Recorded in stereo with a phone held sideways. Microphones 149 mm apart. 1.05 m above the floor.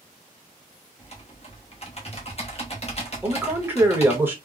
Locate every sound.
1.0 s typing on a keyboard: 45° left (ahead or behind), 1.0 m
3.2 s a man speaking: 15° right (ahead or behind), 1.1 m